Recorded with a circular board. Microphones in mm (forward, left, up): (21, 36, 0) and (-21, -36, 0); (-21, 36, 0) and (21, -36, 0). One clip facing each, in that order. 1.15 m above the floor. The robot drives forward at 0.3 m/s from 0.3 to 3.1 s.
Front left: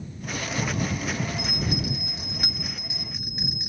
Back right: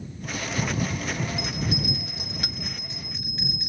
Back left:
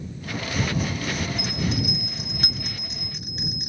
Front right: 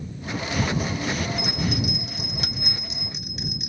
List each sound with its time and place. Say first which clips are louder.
1.4 s a bell: even, front right 1 dB; 95° left, 1.1 m; by 3.7 s 130° left, 1.3 m